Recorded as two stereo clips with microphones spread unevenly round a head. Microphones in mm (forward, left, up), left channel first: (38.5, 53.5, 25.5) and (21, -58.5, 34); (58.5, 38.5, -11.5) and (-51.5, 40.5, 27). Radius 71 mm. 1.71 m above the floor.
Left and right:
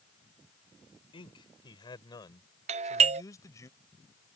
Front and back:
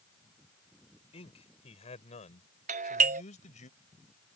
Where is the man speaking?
35° left; by 3.7 s 15° left.